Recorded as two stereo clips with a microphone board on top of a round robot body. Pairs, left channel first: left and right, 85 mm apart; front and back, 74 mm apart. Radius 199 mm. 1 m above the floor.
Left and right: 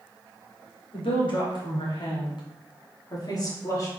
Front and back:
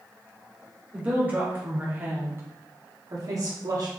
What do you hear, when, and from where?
0.9 s a woman speaking: 110° left, 3 m; by 3.9 s 145° left, 2.5 m